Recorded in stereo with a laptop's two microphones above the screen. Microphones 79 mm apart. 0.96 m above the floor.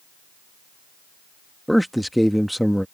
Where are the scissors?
I don't hear scissors.